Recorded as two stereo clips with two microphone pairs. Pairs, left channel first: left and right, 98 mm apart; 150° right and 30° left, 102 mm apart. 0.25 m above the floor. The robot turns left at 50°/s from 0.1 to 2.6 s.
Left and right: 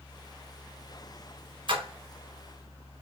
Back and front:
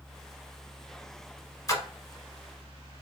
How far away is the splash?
About 0.6 m.